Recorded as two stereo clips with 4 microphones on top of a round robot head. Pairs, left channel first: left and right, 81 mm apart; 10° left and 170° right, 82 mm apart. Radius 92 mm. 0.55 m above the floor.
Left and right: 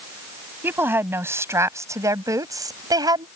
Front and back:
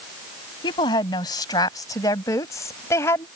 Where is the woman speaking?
25° right; by 3.3 s 55° right.